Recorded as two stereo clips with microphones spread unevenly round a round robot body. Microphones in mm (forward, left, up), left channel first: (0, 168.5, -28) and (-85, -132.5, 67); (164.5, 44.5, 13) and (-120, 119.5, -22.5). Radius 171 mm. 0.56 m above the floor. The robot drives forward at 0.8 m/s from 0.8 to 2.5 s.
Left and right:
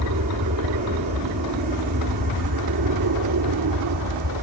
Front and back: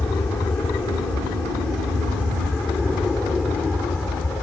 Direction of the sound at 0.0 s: 95° right.